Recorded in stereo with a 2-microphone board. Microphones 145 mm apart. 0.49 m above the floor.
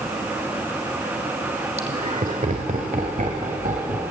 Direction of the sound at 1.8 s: 45° right (ahead or behind).